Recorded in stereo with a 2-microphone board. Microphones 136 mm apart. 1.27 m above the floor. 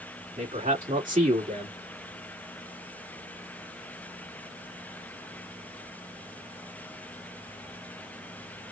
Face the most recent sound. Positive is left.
turn(degrees=-75)  # may be behind; listen again after turning